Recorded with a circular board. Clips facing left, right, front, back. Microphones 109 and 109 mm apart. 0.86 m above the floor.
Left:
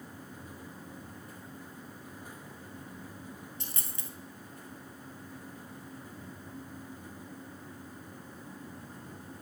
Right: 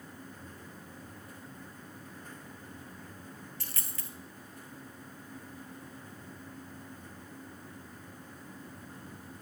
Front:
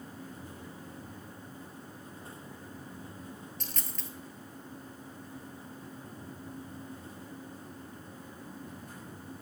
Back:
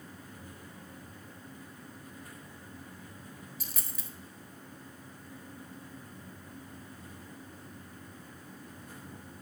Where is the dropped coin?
105° left, 0.9 m.